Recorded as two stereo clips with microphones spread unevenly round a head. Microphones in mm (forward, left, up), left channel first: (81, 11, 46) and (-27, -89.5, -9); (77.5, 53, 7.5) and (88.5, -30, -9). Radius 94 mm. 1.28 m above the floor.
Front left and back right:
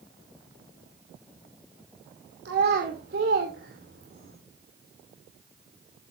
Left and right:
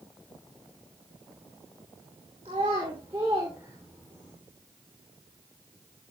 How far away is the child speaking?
About 2.5 m.